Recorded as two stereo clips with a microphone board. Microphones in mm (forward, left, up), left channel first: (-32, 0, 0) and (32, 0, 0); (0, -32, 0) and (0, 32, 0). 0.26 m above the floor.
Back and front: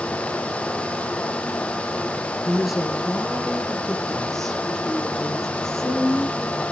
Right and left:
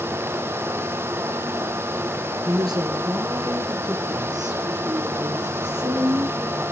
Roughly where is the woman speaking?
Left.